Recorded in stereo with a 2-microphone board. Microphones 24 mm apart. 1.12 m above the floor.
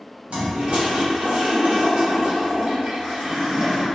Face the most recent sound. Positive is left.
turn(degrees=-55)  # may be behind; listen again after turning